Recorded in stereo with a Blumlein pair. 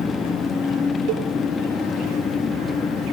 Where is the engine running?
15° left, 1.0 m.